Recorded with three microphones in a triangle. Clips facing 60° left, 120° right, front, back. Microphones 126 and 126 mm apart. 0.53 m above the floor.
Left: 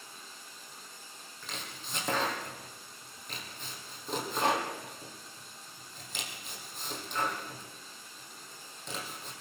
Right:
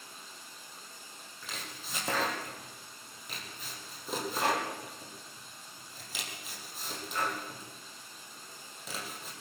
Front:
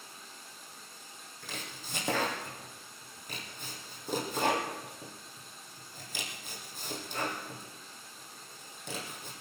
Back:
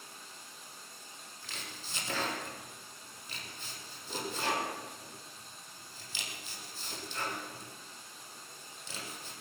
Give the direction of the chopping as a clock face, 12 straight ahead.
1 o'clock.